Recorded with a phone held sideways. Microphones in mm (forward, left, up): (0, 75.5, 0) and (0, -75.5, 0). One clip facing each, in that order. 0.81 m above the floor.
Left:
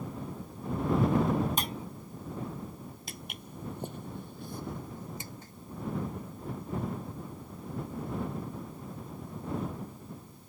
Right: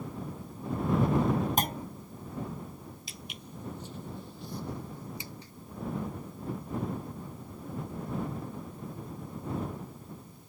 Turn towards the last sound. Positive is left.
turn(degrees=45)  # may be behind; listen again after turning